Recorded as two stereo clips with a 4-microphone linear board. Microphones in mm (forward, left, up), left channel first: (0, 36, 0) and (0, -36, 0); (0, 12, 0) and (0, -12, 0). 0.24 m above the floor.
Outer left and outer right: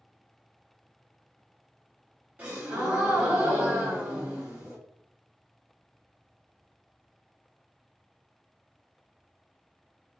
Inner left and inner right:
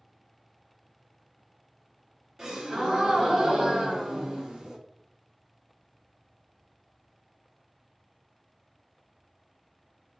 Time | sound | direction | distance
2.4 | a gasp | 20° right (ahead or behind) | 1.3 m